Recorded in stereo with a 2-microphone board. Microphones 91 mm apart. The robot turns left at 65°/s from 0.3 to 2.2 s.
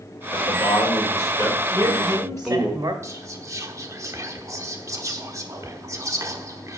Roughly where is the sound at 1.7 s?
Right.